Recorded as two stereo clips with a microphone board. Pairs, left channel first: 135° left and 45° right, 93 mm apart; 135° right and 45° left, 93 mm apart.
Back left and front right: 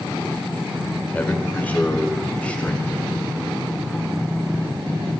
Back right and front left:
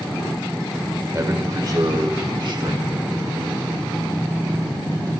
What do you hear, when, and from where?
1.1 s a man speaking: 75° left, 1.2 m; by 3.2 s 60° left, 2.5 m